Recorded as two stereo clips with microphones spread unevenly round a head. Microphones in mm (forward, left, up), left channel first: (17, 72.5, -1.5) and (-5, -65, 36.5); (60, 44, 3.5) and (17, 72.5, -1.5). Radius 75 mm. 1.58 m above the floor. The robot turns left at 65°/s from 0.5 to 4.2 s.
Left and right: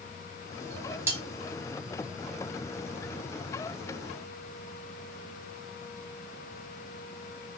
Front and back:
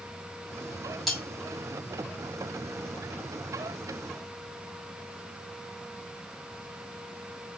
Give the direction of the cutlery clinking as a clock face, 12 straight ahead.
4 o'clock.